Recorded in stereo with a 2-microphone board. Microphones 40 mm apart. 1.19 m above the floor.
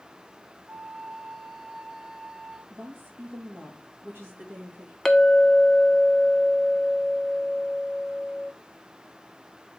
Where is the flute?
20° right (ahead or behind), 0.5 m.